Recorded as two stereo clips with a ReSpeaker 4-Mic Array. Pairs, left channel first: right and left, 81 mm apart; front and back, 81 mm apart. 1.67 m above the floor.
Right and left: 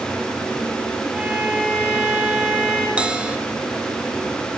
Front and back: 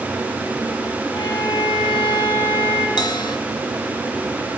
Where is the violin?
15° left, 5 m.